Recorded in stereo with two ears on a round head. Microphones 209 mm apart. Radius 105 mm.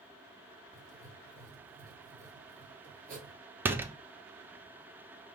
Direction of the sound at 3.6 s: 10° right (ahead or behind).